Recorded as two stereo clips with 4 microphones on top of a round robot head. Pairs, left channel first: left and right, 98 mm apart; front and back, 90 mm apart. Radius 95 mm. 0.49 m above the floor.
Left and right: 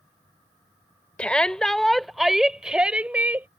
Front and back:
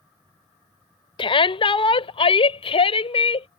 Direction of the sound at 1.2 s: 10° left.